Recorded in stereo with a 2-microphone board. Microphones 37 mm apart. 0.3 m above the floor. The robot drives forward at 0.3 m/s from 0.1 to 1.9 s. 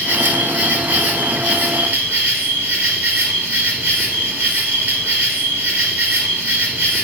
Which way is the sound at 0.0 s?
75° right (ahead or behind).